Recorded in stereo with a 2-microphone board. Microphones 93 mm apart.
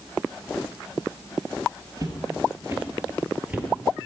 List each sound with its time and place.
2.0 s footsteps: 40° right (ahead or behind), 2.0 m; by 4.0 s 5° right (ahead or behind), 2.0 m